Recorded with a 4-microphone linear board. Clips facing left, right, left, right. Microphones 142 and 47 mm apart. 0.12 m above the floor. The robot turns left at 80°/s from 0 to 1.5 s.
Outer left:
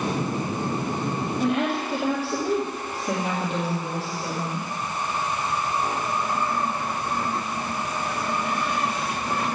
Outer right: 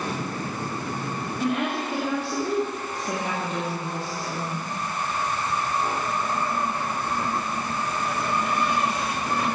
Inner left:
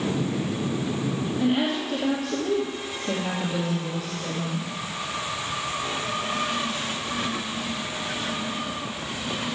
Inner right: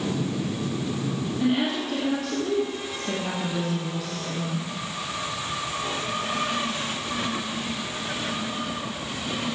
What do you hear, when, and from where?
1.4 s a woman speaking: 5° right (ahead or behind), 3 m; by 4.7 s 5° left (ahead or behind), 3 m